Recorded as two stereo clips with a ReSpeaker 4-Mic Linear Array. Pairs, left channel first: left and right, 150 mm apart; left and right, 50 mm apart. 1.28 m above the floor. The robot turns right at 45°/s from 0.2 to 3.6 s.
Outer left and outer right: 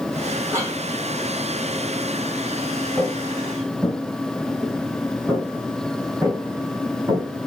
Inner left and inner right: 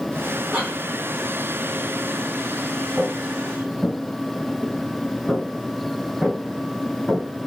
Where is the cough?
15° right (ahead or behind), 3 m; by 0.8 s 30° right (ahead or behind), 3 m.